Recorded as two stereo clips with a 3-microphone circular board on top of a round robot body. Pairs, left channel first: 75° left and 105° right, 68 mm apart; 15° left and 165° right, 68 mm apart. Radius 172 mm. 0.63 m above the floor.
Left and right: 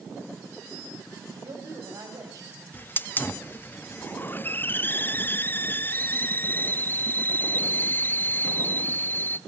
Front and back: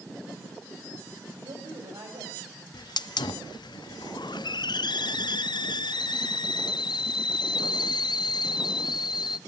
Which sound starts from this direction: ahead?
A hiss, at 2.7 s.